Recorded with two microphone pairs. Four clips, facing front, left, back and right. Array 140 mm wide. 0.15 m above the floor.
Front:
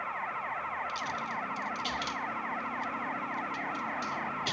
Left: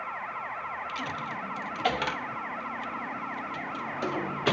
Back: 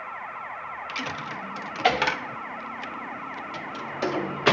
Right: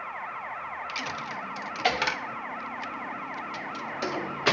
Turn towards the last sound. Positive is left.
turn(degrees=-175)